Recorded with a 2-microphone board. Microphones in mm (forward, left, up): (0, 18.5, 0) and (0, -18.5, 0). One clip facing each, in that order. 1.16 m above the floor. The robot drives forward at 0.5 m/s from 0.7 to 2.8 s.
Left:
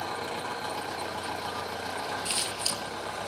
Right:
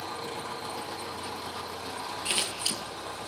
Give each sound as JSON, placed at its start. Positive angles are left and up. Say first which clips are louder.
{"t": 0.0, "sound": "an engine running", "louder": "left 3 dB", "side_deg": 65, "distance_m": 7.0}
{"t": 2.2, "sound": "scissors", "louder": "right 1 dB", "side_deg": -30, "distance_m": 9.0}